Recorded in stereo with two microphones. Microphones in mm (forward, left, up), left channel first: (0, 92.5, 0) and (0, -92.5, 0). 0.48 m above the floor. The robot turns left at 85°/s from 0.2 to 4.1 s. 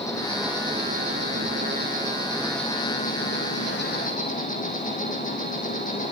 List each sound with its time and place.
0.0 s an insect: 15° left, 4 m; by 6.1 s 45° left, 4 m